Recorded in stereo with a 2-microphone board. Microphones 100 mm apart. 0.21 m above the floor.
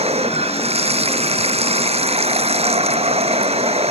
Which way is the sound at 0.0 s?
80° right.